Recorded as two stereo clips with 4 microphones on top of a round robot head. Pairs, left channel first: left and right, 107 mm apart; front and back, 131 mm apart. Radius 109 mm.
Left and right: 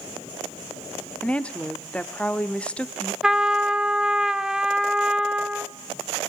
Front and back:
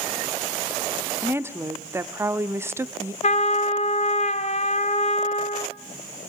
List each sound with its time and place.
1.2 s a woman speaking: 155° left, 0.8 m
3.2 s a trumpet: 5° right, 0.9 m